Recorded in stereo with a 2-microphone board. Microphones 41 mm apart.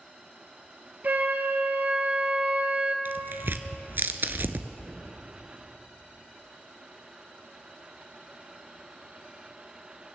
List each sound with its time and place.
1.0 s a flute: 45° right (ahead or behind), 1.1 m
3.0 s tearing paper: 60° right (ahead or behind), 0.6 m